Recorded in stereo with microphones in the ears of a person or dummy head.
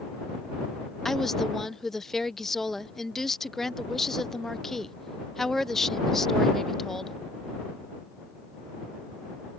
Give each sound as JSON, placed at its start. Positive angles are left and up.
{"t": 1.1, "sound": "a woman speaking", "side_deg": 0}